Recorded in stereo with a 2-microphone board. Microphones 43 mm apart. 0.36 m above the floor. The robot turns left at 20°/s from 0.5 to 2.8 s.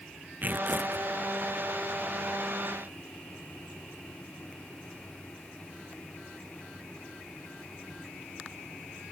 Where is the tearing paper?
40° right (ahead or behind); by 1.1 s 50° right (ahead or behind).